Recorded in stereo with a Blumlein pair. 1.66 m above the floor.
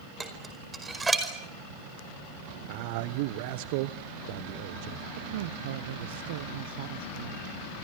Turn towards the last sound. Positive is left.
turn(degrees=-55)